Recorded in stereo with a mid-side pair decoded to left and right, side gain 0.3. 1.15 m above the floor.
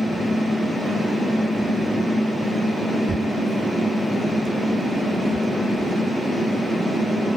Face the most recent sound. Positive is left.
turn(degrees=-35)